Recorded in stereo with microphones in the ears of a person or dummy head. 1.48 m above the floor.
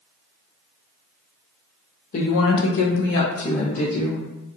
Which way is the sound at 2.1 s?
45° left (ahead or behind).